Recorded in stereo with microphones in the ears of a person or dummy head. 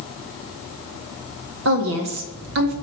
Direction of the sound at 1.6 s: 60° right (ahead or behind).